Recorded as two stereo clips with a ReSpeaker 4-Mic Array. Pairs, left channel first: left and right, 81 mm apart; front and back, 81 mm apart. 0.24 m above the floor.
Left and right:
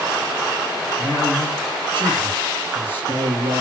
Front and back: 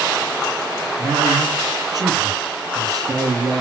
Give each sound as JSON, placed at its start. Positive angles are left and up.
{"t": 1.0, "sound": "a man speaking", "azimuth_deg": 150, "distance_m": 3.0}